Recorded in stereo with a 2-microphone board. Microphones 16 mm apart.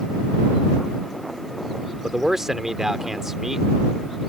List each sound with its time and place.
2.0 s a man speaking: 30° right (ahead or behind)